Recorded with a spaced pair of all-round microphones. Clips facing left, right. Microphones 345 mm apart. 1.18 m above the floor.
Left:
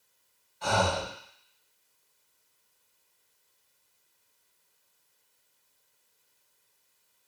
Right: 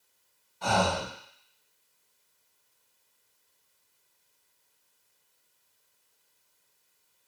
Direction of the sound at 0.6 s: 55° right (ahead or behind).